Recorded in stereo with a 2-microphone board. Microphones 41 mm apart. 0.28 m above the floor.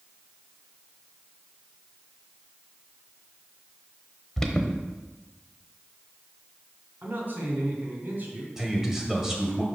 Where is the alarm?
10° left (ahead or behind), 0.9 m.